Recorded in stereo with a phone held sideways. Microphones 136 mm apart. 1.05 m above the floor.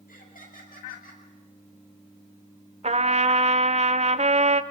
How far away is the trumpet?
About 1.1 m.